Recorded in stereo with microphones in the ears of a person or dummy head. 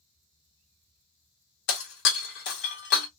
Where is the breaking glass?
55° left (ahead or behind), 1.2 m.